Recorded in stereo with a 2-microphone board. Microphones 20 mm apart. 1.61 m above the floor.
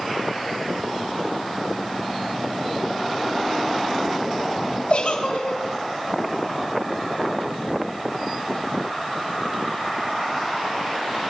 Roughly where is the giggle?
Left.